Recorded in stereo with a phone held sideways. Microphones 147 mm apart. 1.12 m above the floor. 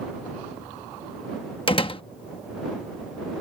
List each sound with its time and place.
1.7 s a door slam: 35° left (ahead or behind)